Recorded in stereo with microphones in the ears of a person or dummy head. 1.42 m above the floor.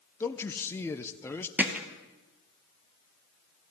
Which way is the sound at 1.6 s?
5° right (ahead or behind).